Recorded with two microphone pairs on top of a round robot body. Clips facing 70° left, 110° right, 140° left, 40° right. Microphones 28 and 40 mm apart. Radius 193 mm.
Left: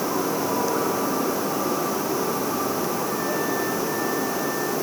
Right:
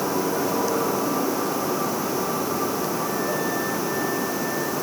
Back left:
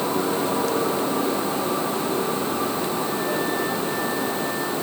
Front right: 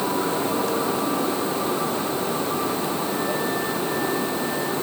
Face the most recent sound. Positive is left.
No sound to turn to.